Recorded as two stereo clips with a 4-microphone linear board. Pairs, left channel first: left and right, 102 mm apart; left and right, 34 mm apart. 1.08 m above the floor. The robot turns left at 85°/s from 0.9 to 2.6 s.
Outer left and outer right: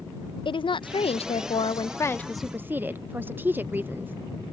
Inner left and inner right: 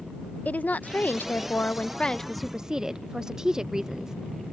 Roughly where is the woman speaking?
Behind left.